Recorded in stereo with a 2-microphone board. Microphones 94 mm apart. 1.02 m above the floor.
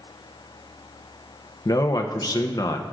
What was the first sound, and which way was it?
A man speaking, 45° left (ahead or behind).